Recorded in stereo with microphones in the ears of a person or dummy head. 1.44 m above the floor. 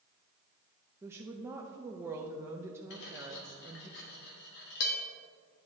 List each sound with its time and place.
1.0 s a woman speaking: 15° right (ahead or behind), 0.5 m
2.9 s cutlery clinking: 60° left (ahead or behind), 1.3 m